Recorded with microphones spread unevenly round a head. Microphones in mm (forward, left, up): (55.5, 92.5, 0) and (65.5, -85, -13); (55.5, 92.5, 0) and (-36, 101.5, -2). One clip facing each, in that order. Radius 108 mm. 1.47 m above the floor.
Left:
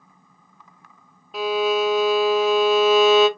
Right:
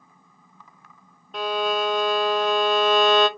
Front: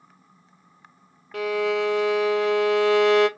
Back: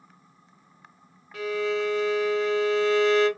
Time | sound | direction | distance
1.3 | a violin | 10° left | 0.6 m